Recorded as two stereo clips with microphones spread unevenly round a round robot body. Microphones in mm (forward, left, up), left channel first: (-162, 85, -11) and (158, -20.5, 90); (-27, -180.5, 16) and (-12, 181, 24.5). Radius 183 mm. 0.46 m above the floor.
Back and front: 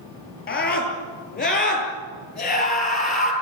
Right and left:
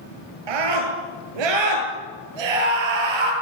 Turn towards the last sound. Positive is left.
turn(degrees=95)